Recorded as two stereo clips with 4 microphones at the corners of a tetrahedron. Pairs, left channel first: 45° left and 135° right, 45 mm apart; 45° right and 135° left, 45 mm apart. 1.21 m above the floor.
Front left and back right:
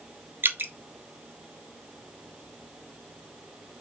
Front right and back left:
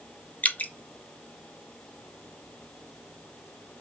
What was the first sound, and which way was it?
Dripping, 100° right.